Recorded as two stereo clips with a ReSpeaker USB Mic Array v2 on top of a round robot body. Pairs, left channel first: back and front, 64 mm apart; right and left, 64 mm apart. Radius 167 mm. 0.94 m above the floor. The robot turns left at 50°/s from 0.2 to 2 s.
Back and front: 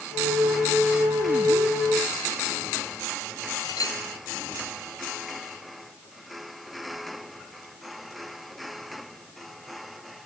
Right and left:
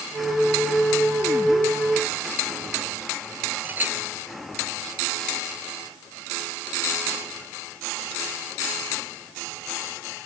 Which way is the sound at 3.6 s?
150° left.